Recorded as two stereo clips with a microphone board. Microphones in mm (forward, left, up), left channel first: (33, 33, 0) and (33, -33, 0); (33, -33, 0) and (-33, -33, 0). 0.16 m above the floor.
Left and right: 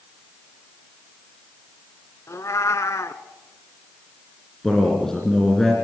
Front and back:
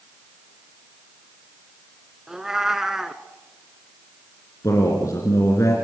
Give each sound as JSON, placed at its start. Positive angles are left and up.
{"t": 2.3, "sound": "a cat meowing", "azimuth_deg": 100, "distance_m": 0.8}
{"t": 4.6, "sound": "a man speaking", "azimuth_deg": 10, "distance_m": 2.5}